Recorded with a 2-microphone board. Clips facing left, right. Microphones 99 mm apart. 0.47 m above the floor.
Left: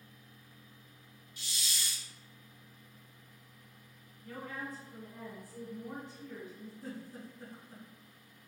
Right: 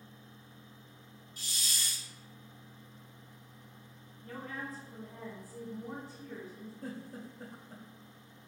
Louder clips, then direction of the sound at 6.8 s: Right 2 dB; 55° right (ahead or behind).